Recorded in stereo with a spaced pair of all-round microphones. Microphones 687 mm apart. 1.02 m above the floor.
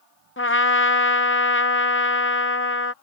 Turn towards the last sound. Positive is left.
turn(degrees=20)  # may be behind; listen again after turning